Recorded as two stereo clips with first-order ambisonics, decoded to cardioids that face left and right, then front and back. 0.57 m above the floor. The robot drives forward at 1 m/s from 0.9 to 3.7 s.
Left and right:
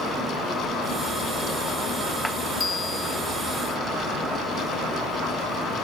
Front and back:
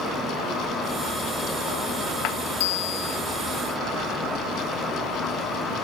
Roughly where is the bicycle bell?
Ahead.